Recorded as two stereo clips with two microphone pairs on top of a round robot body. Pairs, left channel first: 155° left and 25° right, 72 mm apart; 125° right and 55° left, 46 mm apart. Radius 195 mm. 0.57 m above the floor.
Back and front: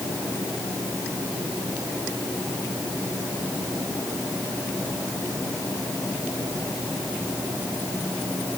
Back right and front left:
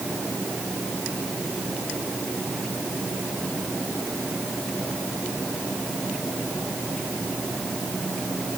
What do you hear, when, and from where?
Only background noise.